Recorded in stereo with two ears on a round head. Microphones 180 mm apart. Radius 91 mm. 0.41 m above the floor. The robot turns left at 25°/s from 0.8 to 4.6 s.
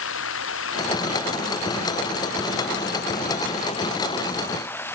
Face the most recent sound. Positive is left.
turn(degrees=10)